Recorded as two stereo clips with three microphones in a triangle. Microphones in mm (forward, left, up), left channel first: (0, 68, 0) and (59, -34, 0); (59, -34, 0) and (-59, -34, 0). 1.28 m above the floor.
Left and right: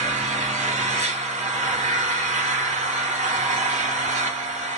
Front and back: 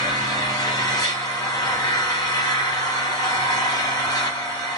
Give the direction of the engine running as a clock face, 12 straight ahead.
2 o'clock.